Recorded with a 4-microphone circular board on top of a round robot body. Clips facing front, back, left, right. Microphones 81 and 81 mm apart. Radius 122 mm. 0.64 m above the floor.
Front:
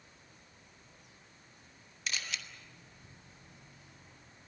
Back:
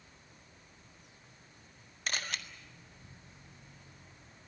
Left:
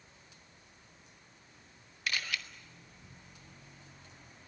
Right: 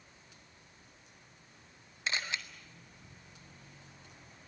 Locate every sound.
2.1 s a camera shutter: 150° right, 1.8 m